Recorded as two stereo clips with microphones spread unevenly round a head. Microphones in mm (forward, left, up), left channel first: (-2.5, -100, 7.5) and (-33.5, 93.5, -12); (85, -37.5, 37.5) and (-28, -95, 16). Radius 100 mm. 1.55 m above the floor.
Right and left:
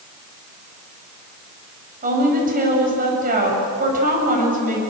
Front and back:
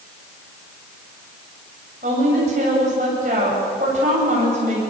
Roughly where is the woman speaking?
Behind left.